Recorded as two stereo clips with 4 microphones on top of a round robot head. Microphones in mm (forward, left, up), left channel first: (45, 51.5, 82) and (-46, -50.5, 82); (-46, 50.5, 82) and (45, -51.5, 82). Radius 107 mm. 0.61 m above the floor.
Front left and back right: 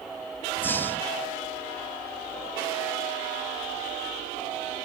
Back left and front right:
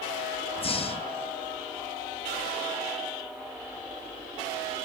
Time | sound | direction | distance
0.6 | breathing | 115° left | 0.7 m